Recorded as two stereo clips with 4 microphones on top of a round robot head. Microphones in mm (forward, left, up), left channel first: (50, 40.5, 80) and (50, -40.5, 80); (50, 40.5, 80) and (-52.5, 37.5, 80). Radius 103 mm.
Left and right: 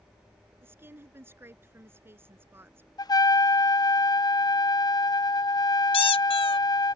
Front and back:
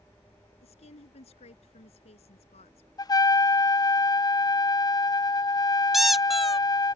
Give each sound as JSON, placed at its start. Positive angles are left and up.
{"t": 0.6, "sound": "a woman speaking", "azimuth_deg": -25}
{"t": 3.0, "sound": "a trumpet", "azimuth_deg": 55}
{"t": 5.9, "sound": "a squeak", "azimuth_deg": 95}